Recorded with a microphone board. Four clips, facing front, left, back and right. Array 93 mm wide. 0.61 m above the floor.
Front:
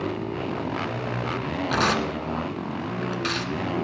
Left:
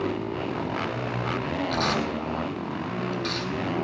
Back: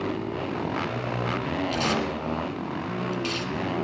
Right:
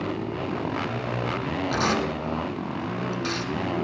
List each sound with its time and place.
1.7 s tearing paper: 10° right, 2 m